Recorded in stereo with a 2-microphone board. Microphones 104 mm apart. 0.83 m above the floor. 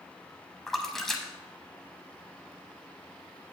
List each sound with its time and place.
0.7 s a splash: centre (ahead or behind), 0.8 m